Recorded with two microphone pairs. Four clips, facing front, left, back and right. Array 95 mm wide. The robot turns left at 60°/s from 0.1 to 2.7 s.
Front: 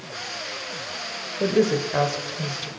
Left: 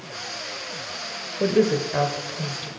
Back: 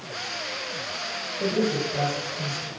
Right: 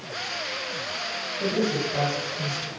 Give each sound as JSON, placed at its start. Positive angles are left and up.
{"t": 1.4, "sound": "a woman speaking", "azimuth_deg": 60, "distance_m": 2.0}